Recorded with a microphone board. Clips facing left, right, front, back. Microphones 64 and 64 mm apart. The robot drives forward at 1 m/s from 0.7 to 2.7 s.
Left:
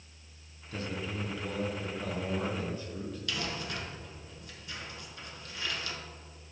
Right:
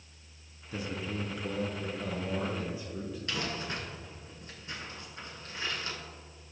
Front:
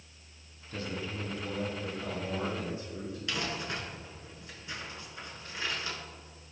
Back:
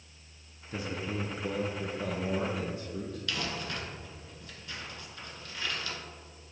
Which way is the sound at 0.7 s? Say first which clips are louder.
Right 1 dB, back 2 dB; 130° right.